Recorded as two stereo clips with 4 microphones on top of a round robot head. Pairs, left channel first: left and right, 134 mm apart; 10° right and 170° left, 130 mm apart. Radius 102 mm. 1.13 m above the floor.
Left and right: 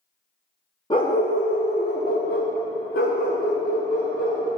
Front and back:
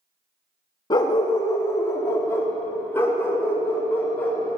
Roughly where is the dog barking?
Ahead left.